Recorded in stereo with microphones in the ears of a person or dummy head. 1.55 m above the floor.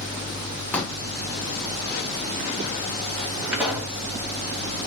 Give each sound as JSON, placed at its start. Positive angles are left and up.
{"t": 0.7, "sound": "a pop", "side_deg": 5, "distance_m": 1.1}
{"t": 3.5, "sound": "a pop", "side_deg": -15, "distance_m": 1.4}